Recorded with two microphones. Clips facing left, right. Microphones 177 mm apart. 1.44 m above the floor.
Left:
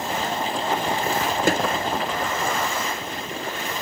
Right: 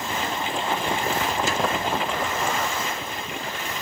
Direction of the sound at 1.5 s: 55° left (ahead or behind).